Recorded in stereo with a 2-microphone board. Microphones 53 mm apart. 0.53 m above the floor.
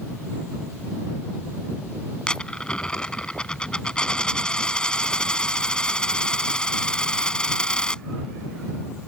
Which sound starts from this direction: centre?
A dropped coin, at 2.3 s.